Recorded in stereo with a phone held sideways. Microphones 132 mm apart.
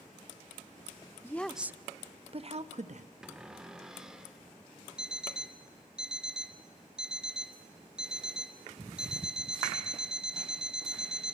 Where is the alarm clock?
5° right (ahead or behind), 1.0 m.